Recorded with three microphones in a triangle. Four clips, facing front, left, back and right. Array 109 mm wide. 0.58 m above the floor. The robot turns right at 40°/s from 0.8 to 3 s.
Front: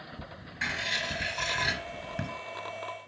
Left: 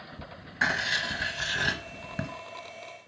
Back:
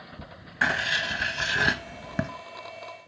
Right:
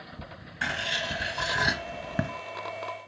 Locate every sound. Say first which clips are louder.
0.6 s writing: left 3 dB, back 8 dB; 160° left, 0.6 m; by 2.3 s 140° right, 0.6 m